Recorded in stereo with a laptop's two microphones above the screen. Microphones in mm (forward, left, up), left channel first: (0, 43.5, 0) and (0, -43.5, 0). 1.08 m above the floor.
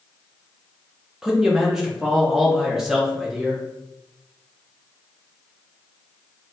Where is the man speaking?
5° right (ahead or behind), 0.6 m.